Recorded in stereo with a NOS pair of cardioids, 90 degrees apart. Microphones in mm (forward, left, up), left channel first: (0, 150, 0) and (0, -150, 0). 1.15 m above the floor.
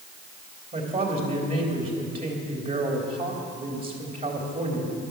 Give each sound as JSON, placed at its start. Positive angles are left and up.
{"t": 0.7, "sound": "a woman speaking", "azimuth_deg": -30, "distance_m": 3.0}